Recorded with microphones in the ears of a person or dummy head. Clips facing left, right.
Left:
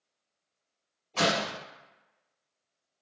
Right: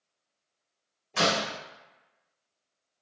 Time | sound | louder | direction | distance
1.1 | a door slam | even | 30° right (ahead or behind) | 1.0 m